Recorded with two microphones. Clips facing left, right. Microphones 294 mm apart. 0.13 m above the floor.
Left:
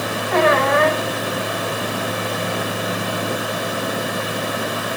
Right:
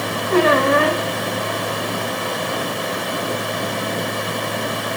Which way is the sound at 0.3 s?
40° right (ahead or behind).